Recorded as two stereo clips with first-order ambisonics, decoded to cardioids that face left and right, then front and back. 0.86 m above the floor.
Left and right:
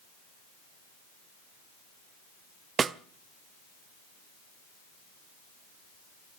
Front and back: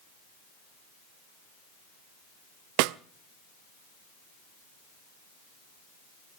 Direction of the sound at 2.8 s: 160° right.